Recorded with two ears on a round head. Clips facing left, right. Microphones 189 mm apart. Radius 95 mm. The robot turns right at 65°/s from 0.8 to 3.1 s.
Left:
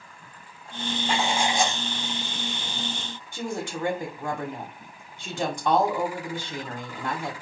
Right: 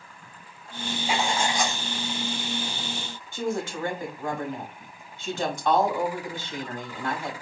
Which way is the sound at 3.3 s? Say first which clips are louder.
Right 3 dB; 15° left (ahead or behind).